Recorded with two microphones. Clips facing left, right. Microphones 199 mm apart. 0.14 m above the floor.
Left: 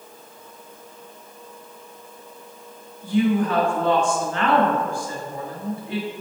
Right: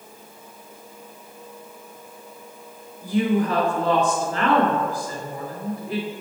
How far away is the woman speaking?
About 1.9 m.